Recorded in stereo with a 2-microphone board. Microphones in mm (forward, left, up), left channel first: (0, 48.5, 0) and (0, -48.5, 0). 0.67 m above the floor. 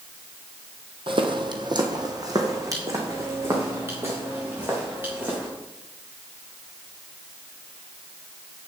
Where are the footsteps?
60° right (ahead or behind), 1.2 m; by 5.5 s 20° right (ahead or behind), 5 m.